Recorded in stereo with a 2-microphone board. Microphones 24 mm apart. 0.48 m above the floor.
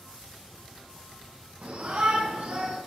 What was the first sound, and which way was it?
A shout, 70° right (ahead or behind).